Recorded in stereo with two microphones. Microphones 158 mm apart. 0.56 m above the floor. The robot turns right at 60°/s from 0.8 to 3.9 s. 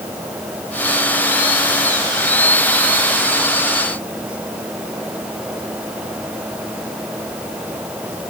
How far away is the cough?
I don't hear a cough.